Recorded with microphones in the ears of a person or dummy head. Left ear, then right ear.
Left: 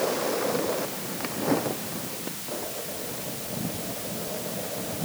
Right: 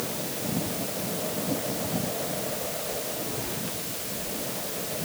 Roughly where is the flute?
I don't hear a flute.